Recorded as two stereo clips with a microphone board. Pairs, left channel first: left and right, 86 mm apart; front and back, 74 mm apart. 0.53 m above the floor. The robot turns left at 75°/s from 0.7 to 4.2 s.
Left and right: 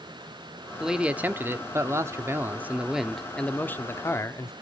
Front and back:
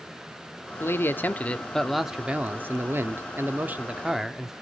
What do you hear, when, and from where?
0.8 s a man speaking: 5° right, 0.7 m; by 4.5 s 100° left, 0.7 m